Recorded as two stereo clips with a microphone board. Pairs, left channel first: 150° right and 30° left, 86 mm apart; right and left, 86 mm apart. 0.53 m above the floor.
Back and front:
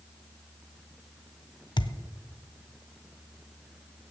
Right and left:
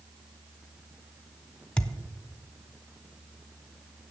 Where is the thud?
165° right, 0.6 m.